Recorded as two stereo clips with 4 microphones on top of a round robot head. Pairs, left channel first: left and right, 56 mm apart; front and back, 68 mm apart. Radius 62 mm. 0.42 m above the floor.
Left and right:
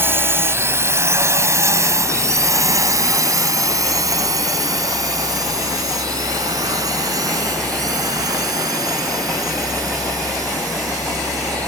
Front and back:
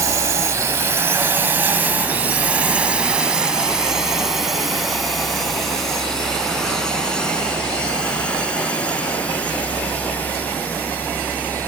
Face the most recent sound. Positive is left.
turn(degrees=-70)